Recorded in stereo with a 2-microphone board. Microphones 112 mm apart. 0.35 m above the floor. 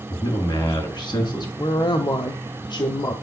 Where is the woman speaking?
40° left (ahead or behind), 1.5 m.